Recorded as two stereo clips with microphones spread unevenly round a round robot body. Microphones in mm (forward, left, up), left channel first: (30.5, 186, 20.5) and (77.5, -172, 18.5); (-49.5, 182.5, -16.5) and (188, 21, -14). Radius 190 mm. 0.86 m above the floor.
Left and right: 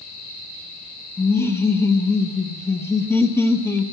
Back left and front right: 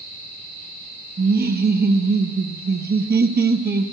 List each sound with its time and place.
1.2 s laughter: 15° left, 1.0 m